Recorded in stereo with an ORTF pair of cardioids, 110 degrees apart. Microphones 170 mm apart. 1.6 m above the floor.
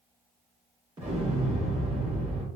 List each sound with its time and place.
1.0 s an explosion: 30° right, 2.0 m